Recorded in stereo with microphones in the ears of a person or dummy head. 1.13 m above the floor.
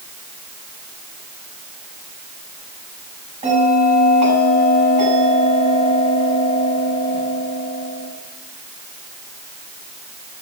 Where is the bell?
30° right (ahead or behind), 8 m.